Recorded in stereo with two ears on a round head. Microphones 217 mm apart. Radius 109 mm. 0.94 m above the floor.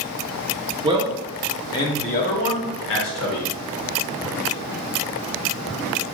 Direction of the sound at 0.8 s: 20° right (ahead or behind).